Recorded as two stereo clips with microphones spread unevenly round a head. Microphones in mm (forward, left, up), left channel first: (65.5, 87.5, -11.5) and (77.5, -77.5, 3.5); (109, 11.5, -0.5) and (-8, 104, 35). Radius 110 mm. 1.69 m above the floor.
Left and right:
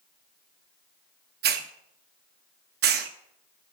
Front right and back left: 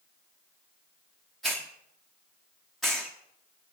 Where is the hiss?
130° right, 0.6 m.